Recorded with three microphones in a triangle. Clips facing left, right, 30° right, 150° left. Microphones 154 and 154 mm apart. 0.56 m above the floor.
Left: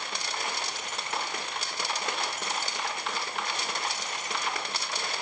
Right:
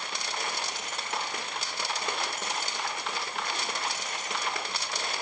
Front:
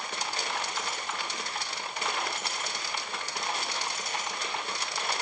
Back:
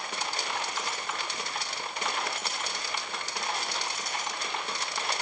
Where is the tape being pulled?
No tape being pulled in this recording.